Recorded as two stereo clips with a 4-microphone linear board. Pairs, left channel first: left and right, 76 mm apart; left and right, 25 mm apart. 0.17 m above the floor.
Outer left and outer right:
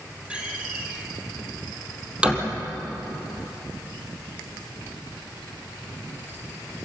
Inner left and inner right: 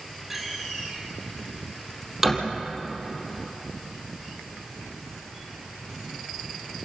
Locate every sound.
0.3 s a door slam: 15° right (ahead or behind), 3.5 m